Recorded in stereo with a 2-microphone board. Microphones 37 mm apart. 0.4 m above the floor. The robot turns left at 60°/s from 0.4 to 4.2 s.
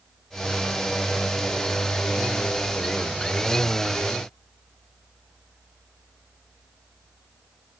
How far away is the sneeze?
I don't hear a sneeze.